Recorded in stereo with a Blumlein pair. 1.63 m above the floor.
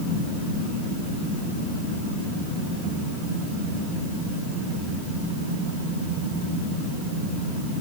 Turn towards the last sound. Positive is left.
No sound to turn to.